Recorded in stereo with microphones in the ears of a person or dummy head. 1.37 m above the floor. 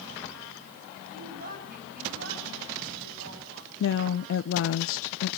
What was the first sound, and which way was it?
A woman speaking, 40° right (ahead or behind).